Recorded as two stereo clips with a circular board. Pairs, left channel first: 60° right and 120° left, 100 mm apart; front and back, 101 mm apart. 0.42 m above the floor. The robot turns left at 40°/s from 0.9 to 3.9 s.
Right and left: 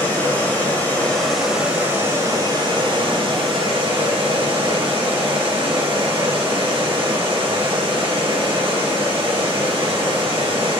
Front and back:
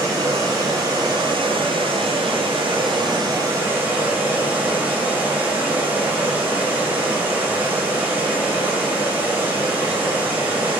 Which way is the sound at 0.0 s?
130° right.